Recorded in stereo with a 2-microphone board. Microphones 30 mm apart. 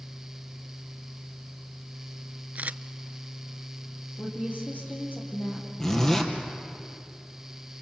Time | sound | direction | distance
2.5 | a camera shutter | 60° right (ahead or behind) | 0.5 m
4.2 | a woman speaking | 75° left (ahead or behind) | 6 m
5.8 | a zipper | 20° left (ahead or behind) | 2.5 m